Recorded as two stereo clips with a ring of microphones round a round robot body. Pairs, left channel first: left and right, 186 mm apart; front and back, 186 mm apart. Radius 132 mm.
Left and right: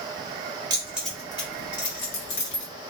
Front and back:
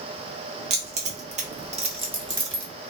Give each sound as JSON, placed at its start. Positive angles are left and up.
{"t": 0.7, "sound": "keys jangling", "azimuth_deg": -150, "distance_m": 0.8}